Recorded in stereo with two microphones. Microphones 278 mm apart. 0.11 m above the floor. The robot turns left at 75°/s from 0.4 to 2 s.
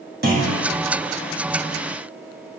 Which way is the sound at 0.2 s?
40° right (ahead or behind).